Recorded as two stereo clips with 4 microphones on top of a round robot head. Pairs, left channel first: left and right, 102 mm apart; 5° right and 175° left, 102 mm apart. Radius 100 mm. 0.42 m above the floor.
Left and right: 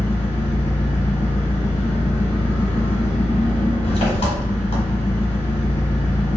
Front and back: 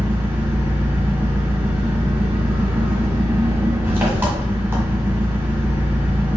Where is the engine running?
100° left, 1.7 m.